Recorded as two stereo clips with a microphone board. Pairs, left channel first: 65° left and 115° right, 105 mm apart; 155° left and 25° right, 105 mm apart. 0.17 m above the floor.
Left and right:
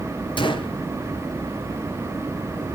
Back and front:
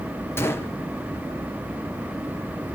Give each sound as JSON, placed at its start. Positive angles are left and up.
{"t": 0.4, "sound": "a gunshot", "azimuth_deg": 95, "distance_m": 1.6}